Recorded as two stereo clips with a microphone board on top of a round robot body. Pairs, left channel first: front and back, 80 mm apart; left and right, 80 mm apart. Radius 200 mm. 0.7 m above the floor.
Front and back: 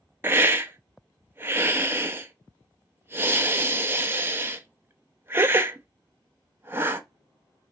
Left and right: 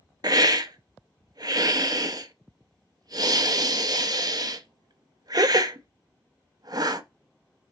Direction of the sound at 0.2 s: 120° right.